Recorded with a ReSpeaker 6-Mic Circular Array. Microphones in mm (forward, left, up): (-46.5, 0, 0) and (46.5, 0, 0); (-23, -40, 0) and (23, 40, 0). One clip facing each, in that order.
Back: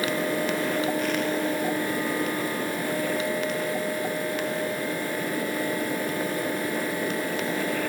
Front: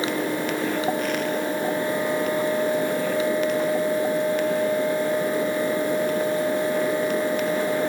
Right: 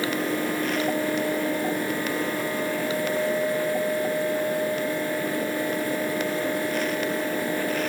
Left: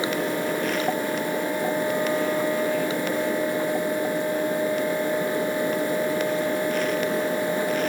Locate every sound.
Only background noise.